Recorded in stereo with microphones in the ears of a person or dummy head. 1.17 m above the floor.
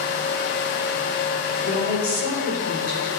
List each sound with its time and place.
1.6 s a woman speaking: 80° left, 2.5 m; by 3.1 s 55° left (ahead or behind), 3.5 m